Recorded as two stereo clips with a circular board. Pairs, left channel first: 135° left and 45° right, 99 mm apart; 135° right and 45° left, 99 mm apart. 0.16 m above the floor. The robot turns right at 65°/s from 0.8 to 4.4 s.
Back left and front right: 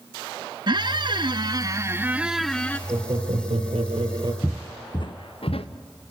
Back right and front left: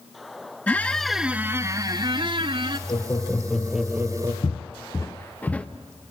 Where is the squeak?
60° right, 0.8 m; by 2.8 s 65° left, 0.8 m.